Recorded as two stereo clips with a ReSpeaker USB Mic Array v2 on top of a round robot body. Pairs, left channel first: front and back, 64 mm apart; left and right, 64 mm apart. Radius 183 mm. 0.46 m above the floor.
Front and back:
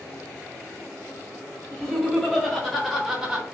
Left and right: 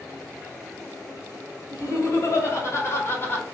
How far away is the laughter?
About 2.0 m.